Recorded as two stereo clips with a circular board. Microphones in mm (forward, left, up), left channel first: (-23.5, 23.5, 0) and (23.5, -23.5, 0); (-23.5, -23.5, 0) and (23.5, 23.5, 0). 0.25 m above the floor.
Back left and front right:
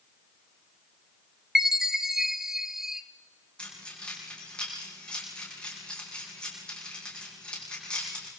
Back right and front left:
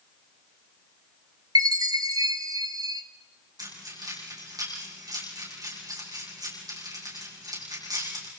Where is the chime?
40° left, 1.3 m.